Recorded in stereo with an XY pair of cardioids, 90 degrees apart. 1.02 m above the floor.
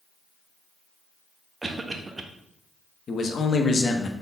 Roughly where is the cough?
Ahead right.